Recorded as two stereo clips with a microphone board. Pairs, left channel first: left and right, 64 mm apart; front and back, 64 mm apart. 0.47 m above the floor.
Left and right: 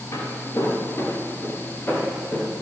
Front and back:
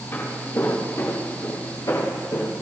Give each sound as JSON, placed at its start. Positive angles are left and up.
{"t": 0.1, "sound": "footsteps", "azimuth_deg": 55, "distance_m": 4.0}